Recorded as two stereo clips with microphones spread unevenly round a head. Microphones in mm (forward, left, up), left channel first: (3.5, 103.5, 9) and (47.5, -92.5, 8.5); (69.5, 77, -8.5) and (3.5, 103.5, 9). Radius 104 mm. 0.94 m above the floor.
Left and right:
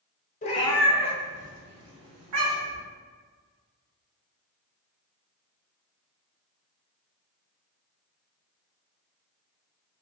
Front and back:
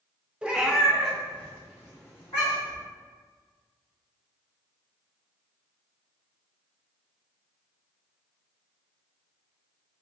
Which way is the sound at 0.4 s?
120° left.